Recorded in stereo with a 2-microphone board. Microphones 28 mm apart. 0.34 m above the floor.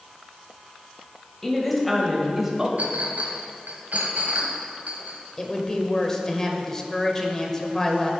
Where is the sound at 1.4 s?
10° left (ahead or behind), 1.7 m; by 2.7 s 20° right (ahead or behind), 1.4 m.